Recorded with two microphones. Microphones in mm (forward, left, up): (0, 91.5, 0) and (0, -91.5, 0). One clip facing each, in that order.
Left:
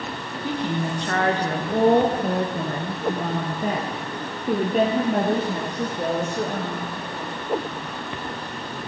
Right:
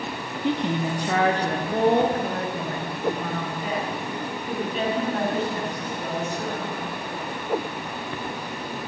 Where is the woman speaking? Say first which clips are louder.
Right 2 dB; 25° right (ahead or behind), 1.2 m; by 6.9 s 65° left (ahead or behind), 3 m.